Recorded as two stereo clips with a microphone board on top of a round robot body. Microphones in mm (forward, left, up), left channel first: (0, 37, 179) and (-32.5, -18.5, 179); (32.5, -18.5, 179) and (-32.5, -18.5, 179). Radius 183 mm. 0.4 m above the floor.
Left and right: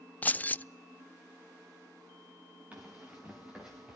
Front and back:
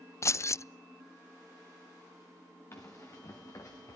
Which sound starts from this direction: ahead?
Keys jangling, at 0.2 s.